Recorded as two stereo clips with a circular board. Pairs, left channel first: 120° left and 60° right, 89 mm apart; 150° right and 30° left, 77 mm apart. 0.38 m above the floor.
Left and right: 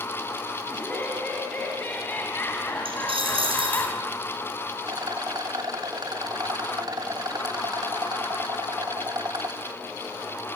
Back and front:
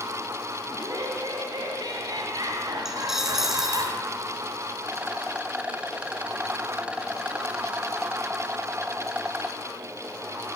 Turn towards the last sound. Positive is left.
turn(degrees=-40)